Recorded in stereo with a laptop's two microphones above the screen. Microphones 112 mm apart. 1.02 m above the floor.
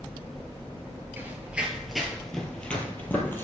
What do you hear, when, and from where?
1.2 s running footsteps: 20° right (ahead or behind), 1.3 m; by 3.5 s 20° left (ahead or behind), 2.0 m